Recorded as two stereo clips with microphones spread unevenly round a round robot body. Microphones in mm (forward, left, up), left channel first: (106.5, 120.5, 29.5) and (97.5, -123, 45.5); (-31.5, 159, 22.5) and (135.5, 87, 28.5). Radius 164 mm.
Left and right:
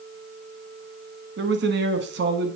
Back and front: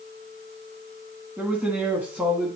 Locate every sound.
1.4 s a man speaking: 105° right, 1.1 m